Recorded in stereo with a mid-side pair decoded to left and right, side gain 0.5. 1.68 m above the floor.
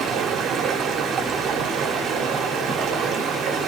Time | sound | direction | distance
0.0 | running water | 65° right | 0.9 m